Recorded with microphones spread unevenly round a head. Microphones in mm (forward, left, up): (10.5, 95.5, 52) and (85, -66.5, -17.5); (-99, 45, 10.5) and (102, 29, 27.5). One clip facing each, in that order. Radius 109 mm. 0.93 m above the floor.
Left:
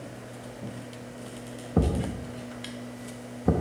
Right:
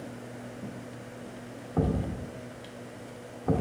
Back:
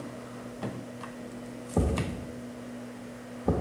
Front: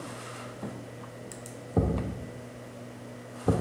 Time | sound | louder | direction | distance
1.8 | a thud | left 2 dB, front 1 dB | 80° left | 1.3 m